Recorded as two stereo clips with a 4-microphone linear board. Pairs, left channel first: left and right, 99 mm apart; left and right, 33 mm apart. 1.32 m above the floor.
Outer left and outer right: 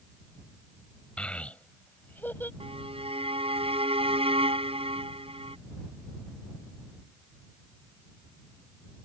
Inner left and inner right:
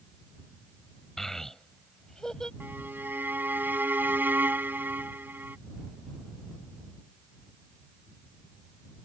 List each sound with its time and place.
1.2 s a child speaking: 10° left (ahead or behind); by 2.5 s 20° left (ahead or behind)
2.6 s a violin: 75° right (ahead or behind)